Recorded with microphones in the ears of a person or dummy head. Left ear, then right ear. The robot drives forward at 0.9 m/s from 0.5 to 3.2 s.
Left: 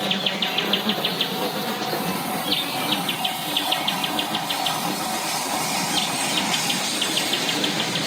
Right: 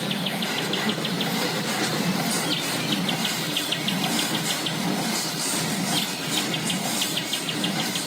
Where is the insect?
40° left (ahead or behind); by 8.1 s 20° left (ahead or behind).